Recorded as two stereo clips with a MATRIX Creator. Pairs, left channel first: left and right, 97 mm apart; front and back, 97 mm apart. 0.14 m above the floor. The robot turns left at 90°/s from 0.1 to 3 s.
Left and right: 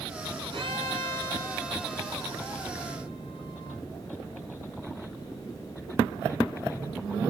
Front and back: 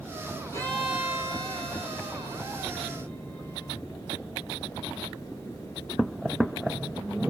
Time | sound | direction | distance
0.5 | a violin | 55° right | 5.5 m